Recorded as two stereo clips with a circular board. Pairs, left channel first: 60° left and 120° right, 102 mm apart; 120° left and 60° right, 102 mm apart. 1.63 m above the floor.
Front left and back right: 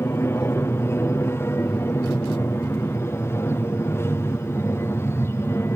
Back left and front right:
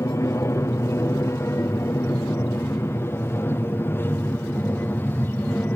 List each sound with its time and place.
0.0 s an aircraft: 95° left; by 5.8 s 75° left